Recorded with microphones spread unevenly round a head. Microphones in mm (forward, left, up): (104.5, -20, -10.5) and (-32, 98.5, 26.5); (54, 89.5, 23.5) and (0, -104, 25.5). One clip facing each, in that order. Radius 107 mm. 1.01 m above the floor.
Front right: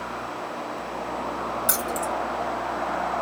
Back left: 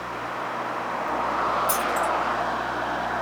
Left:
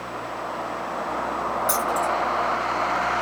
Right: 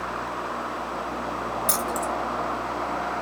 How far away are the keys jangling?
About 1.2 m.